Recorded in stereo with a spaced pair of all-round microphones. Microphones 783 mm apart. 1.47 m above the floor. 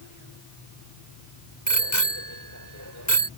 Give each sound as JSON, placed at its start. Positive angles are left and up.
{"t": 1.7, "sound": "a bicycle bell", "side_deg": 20}